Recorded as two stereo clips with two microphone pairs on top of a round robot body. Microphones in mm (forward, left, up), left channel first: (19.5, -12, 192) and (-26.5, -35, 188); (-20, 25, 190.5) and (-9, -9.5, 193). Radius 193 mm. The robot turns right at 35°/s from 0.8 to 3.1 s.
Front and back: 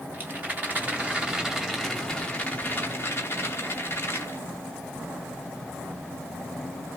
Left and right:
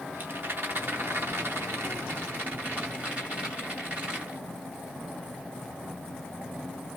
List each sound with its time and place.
0.1 s a rattle: 95° right, 2.5 m; by 4.4 s 15° right, 2.5 m